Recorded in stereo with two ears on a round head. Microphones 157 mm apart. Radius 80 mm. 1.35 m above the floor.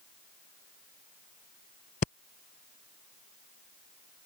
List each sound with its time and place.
2.0 s breathing: 45° left (ahead or behind)